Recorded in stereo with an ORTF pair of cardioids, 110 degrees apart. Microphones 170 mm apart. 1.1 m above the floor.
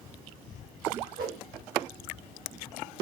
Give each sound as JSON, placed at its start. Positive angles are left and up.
{"t": 1.2, "sound": "a whoosh", "azimuth_deg": -65, "distance_m": 1.3}